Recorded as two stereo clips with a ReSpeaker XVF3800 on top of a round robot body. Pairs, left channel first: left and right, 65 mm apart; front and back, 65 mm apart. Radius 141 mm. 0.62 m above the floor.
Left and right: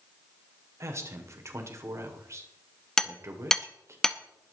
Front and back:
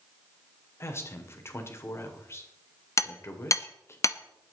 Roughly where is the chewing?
I don't hear chewing.